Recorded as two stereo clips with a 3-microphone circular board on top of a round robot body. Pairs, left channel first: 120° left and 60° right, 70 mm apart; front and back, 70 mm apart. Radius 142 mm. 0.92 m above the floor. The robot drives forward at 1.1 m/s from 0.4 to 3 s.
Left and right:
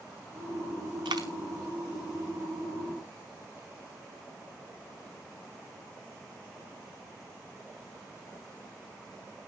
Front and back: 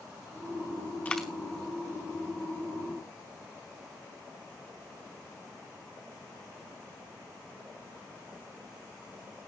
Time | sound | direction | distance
1.1 | a dropped coin | 65° right | 0.6 m